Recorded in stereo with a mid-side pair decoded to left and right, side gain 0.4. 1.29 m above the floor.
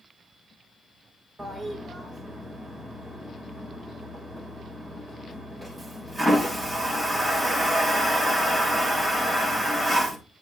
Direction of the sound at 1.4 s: 20° right.